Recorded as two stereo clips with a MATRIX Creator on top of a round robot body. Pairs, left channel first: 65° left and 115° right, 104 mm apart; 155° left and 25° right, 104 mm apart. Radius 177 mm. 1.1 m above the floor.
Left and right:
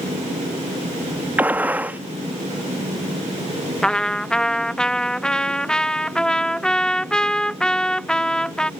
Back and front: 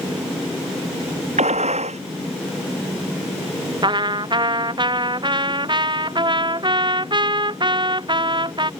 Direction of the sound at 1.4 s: 35° right.